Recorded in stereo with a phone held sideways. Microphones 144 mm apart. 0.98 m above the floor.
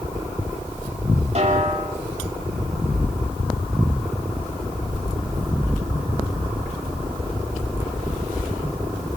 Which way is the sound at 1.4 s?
50° right (ahead or behind).